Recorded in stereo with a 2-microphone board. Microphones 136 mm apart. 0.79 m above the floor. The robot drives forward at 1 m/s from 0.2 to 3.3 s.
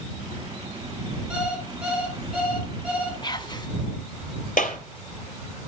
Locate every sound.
1.3 s an alarm clock: 5° right (ahead or behind), 6 m
3.2 s whispering: 35° left (ahead or behind), 1.8 m
4.6 s a clap: 80° left, 3 m